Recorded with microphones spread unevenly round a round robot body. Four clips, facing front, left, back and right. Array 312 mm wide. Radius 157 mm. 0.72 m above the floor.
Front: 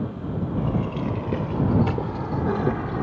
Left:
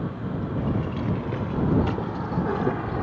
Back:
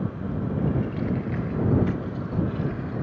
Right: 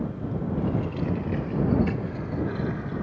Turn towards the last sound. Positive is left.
turn(degrees=40)